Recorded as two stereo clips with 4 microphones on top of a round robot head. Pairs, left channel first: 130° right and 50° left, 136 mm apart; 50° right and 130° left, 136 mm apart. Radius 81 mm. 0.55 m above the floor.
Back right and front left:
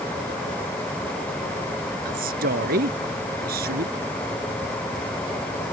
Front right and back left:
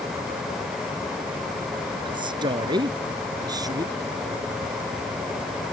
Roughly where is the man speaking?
Left.